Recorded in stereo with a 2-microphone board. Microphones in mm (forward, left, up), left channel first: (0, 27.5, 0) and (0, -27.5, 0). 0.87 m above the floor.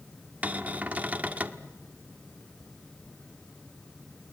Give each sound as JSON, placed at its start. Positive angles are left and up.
{"t": 0.4, "sound": "a cupboard door", "side_deg": -30, "distance_m": 1.1}